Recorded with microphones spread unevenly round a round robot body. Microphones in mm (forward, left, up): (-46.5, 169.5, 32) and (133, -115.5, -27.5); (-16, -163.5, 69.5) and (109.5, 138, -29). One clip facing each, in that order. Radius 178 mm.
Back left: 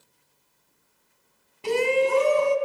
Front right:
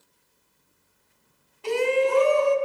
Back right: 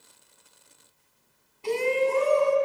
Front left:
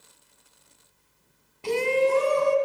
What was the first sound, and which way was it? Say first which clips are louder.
A shout: even, front left 2 dB; 65° left.